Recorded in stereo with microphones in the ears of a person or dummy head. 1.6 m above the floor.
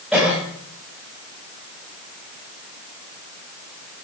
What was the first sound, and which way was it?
A cough, centre (ahead or behind).